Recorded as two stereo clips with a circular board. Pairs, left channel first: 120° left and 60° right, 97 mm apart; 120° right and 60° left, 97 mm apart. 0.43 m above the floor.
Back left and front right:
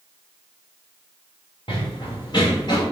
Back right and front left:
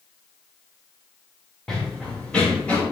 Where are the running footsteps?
150° left, 3 m; by 2.8 s 165° left, 3.5 m.